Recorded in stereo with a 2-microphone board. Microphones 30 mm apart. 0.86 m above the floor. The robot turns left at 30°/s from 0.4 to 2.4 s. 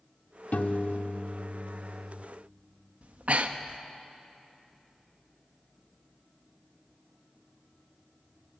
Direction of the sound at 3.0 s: 55° right (ahead or behind).